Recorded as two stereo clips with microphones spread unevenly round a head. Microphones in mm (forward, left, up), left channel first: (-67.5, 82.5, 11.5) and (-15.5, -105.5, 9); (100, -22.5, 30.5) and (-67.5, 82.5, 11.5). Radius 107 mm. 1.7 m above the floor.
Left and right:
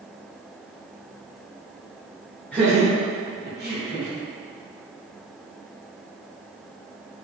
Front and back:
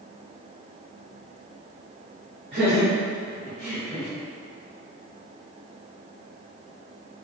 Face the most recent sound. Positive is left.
turn(degrees=-105)